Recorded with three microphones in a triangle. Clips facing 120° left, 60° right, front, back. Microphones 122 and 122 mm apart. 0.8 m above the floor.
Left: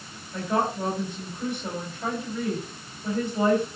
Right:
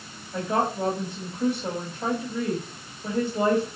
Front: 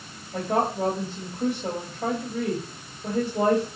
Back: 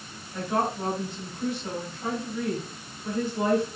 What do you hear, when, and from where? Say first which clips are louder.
0.3 s a woman speaking: right 1 dB, front 3 dB; straight ahead, 4.5 m